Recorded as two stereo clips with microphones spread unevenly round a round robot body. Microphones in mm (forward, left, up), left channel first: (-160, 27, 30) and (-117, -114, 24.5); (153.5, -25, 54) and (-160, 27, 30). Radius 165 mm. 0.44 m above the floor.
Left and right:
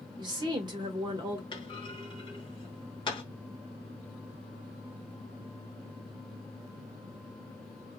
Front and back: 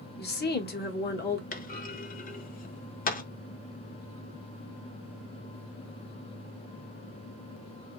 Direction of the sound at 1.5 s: 50° left.